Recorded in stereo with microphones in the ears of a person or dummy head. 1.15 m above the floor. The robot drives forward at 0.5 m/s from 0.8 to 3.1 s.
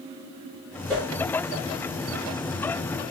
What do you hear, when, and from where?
0.9 s a whoosh: 20° right (ahead or behind), 1.7 m